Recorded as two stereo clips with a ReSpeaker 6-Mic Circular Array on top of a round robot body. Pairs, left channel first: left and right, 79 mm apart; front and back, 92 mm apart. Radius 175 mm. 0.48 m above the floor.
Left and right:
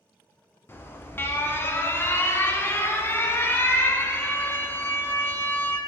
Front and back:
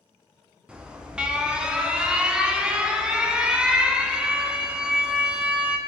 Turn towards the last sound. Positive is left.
turn(degrees=110)